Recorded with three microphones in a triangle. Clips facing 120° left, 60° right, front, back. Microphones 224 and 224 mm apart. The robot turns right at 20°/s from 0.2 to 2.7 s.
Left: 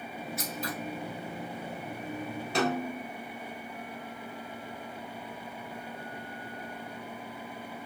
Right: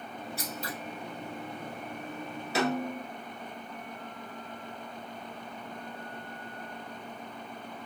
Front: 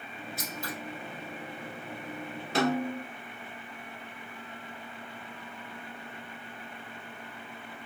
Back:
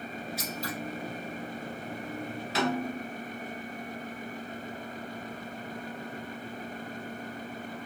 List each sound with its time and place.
0.4 s scissors: 10° right, 1.3 m; by 0.7 s straight ahead, 1.3 m
2.5 s a snare drum: 25° left, 1.1 m